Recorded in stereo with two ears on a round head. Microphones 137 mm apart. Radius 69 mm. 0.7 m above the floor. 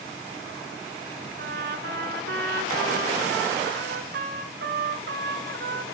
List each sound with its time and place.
1.4 s a trumpet: 70° right (ahead or behind), 1.7 m